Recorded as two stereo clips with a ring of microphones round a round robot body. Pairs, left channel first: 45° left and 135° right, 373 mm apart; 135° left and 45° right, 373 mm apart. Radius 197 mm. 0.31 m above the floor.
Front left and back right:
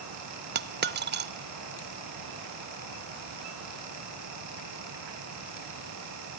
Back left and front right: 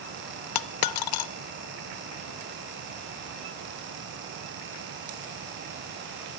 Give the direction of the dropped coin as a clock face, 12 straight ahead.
7 o'clock.